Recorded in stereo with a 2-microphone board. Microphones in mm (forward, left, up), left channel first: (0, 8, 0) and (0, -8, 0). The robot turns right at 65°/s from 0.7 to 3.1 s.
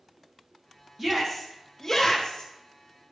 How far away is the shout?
About 2.5 m.